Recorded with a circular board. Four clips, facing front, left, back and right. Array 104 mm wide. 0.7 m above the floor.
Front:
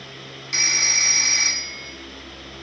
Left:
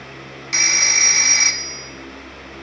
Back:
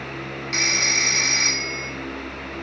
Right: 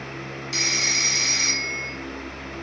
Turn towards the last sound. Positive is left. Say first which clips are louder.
# left 6 dB, back 2 dB
turn(degrees=100)